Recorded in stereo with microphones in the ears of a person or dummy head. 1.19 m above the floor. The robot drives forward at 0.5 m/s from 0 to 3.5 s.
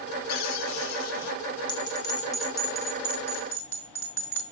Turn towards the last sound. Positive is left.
turn(degrees=15)  # may be behind; listen again after turning